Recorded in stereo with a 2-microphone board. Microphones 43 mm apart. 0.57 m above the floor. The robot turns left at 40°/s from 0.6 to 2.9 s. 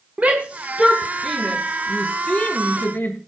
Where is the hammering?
No hammering in this recording.